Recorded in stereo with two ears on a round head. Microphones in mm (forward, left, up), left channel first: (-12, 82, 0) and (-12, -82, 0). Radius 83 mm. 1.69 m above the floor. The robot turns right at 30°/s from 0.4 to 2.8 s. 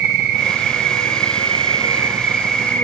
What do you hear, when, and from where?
0.0 s an insect: 65° right, 3 m; by 2.9 s 10° left, 3 m